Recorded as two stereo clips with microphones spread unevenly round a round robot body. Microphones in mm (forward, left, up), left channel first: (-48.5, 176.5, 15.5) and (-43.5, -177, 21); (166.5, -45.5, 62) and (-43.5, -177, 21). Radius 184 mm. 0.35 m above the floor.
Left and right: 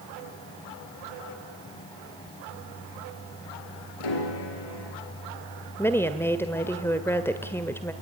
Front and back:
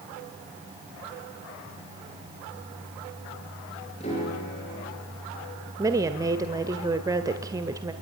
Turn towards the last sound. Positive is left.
turn(degrees=170)